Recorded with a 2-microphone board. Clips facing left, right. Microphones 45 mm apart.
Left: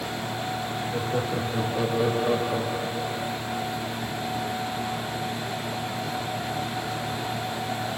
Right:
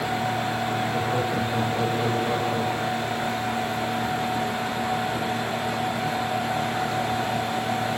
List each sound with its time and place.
0.9 s laughter: 5° right (ahead or behind), 3.5 m; by 3.3 s 40° left (ahead or behind), 3 m